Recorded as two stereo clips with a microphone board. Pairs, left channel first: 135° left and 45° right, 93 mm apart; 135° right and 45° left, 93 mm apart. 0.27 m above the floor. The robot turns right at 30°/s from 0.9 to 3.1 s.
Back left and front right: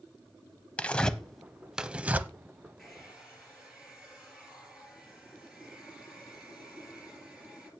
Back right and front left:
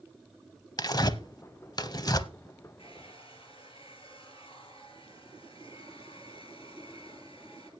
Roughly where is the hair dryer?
Behind right.